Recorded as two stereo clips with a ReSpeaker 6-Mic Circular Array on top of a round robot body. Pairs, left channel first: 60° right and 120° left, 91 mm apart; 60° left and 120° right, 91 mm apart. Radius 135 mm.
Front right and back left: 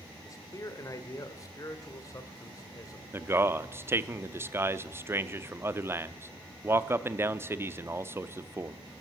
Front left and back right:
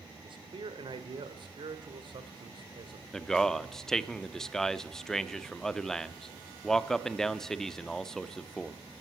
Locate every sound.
0.2 s a man speaking: 110° right, 1.7 m
3.1 s a man speaking: 140° left, 0.9 m